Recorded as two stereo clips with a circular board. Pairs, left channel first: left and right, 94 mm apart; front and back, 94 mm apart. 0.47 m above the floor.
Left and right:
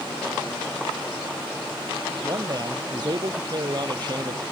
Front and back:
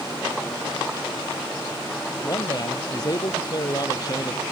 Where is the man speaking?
50° right.